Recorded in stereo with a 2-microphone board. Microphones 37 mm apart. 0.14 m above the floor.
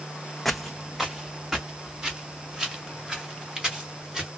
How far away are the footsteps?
About 0.5 m.